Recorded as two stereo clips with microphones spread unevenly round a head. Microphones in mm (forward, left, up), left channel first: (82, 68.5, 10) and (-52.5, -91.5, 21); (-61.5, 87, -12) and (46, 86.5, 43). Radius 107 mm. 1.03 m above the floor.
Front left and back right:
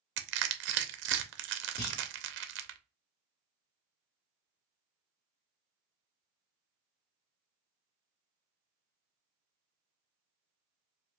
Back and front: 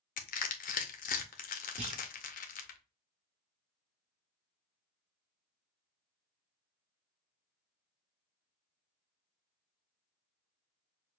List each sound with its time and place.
0.2 s crushing: 160° right, 0.6 m
1.8 s a clunk: 15° left, 1.8 m